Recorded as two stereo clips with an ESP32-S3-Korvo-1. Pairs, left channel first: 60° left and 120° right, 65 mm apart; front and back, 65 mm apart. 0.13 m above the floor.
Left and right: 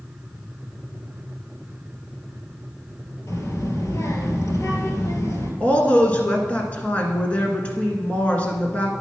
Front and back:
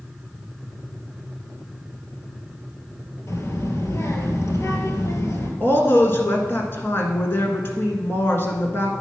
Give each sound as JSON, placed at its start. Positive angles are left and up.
{"t": 3.3, "sound": "a child speaking", "azimuth_deg": 30, "distance_m": 2.0}
{"t": 5.6, "sound": "a woman speaking", "azimuth_deg": 10, "distance_m": 1.5}